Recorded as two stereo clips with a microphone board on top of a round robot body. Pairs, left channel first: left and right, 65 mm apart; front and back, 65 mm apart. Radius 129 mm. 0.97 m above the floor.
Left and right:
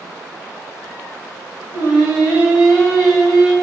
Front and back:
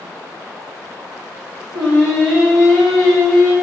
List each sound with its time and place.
1.7 s singing: 75° left, 1.1 m